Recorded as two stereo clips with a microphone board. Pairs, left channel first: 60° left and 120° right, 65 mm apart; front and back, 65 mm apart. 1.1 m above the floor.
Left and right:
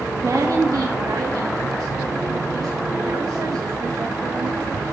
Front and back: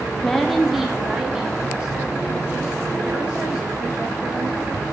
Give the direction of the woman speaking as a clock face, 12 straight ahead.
3 o'clock.